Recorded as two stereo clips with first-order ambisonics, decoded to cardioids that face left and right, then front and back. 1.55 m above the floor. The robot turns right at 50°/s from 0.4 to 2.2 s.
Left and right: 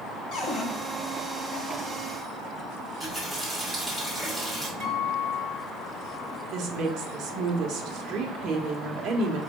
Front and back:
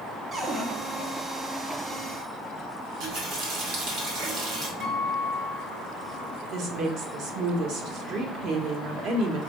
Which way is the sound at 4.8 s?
145° right.